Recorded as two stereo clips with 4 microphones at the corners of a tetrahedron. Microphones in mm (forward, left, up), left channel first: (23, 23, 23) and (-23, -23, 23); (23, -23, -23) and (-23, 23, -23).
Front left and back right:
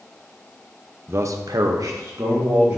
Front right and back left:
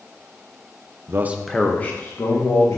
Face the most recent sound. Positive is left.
turn(degrees=-90)